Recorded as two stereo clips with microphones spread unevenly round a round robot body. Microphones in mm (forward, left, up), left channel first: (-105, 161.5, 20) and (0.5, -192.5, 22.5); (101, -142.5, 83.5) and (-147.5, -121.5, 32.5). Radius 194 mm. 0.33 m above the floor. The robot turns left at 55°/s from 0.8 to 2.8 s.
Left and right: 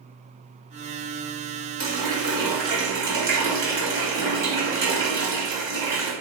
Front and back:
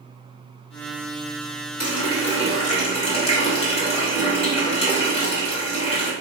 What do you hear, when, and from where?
1.8 s a running tap: 25° right, 1.7 m; by 6.1 s 80° right, 1.7 m